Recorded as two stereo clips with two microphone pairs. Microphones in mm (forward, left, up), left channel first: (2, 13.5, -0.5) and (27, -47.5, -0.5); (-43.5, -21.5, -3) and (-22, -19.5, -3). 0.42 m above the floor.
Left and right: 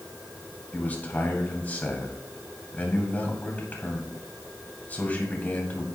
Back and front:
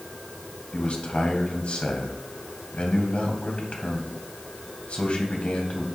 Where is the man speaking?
175° left, 2.5 m.